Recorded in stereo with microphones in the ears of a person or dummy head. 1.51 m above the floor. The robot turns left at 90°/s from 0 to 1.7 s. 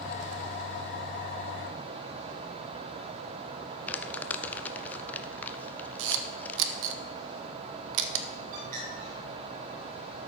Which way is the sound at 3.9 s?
10° left (ahead or behind).